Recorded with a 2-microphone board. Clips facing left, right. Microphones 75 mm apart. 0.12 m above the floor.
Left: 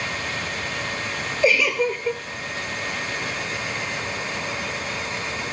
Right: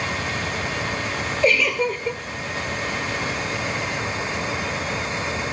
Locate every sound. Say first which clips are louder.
1.4 s a giggle: even; 5° left (ahead or behind), 0.6 m